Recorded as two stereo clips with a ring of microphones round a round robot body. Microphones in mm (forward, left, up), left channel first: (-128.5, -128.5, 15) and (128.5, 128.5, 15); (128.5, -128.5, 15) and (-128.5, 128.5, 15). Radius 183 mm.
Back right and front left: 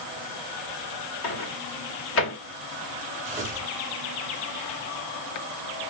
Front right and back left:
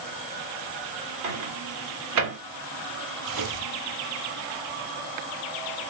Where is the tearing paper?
110° left, 1.6 m.